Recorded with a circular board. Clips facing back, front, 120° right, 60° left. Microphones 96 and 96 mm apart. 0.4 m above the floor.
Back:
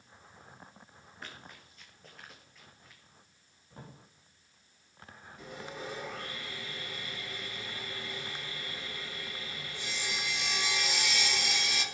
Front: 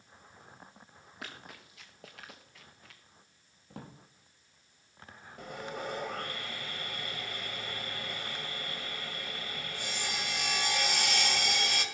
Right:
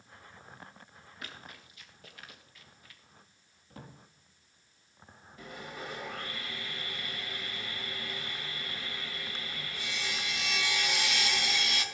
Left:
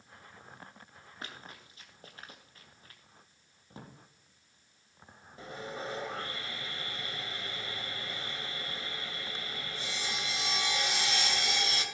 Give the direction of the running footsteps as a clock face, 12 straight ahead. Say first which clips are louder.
Front 2 dB, left 1 dB; 12 o'clock.